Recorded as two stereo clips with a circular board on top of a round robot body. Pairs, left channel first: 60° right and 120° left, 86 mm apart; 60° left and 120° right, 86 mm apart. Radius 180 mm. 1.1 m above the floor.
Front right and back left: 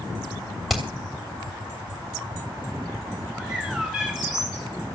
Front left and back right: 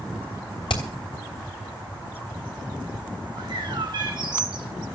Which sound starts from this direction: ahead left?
Hammering, at 0.7 s.